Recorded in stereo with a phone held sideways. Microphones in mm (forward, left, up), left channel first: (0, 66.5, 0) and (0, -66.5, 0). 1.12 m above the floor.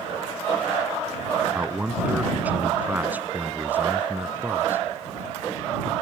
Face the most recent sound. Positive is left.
turn(degrees=-15)  # may be behind; listen again after turning